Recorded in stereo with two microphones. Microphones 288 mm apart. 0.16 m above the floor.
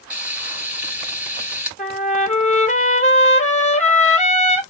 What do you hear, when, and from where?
0.1 s frying: 5° right (ahead or behind), 3 m
1.8 s a trumpet: 25° left (ahead or behind), 0.9 m